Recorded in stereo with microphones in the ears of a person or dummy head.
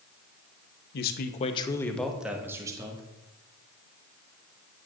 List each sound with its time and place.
0.9 s a man speaking: 65° left (ahead or behind), 1.1 m; by 3.0 s 25° right (ahead or behind), 2.0 m